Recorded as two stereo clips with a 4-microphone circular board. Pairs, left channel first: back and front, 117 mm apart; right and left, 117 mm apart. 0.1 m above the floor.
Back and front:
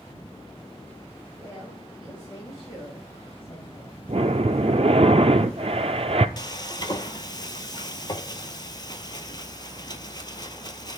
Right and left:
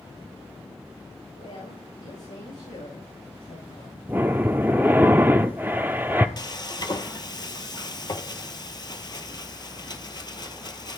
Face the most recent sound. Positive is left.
turn(degrees=-135)